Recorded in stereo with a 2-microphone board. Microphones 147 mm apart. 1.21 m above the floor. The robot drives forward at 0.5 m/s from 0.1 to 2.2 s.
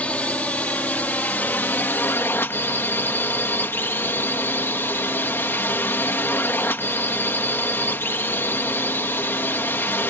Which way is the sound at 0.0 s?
10° left (ahead or behind).